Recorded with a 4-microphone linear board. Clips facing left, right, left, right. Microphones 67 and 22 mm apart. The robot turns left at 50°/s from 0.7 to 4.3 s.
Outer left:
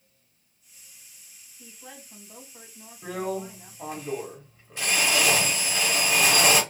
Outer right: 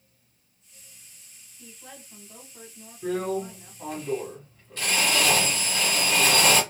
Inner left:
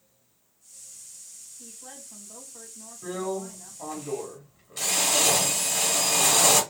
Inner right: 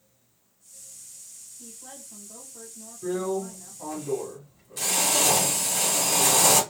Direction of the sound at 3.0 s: 25° left (ahead or behind).